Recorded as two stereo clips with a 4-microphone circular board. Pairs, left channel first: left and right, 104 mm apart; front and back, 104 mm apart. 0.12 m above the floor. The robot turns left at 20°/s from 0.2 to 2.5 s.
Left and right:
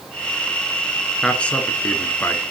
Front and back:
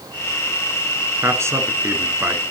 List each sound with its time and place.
1.2 s a man speaking: 160° left, 1.2 m; by 2.4 s 135° left, 1.2 m